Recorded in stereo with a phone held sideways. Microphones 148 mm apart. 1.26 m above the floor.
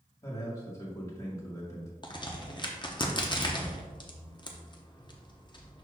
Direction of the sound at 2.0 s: 30° left (ahead or behind).